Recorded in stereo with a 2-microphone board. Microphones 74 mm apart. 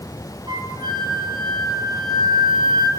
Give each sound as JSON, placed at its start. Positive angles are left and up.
{"t": 0.5, "sound": "a flute", "side_deg": -75, "distance_m": 3.5}